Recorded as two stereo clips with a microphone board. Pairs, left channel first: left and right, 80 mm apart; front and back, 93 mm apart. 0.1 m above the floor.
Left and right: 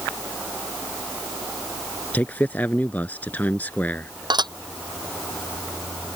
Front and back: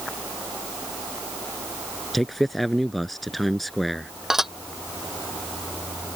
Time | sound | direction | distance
2.1 | a man speaking | 85° left | ?
4.3 | dishes clattering | 95° right | ?